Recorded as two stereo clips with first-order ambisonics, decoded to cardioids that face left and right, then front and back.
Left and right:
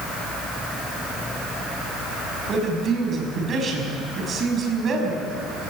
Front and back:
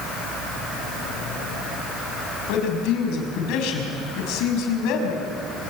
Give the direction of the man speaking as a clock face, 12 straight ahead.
1 o'clock.